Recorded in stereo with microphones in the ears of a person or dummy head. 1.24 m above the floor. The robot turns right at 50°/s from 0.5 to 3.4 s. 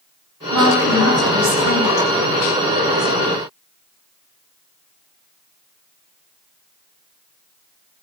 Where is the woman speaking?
155° right, 9 m; by 2.1 s 75° right, 9 m.